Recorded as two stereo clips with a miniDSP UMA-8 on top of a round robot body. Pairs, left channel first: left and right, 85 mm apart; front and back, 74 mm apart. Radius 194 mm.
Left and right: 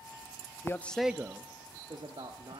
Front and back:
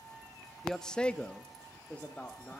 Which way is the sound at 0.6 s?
85° left.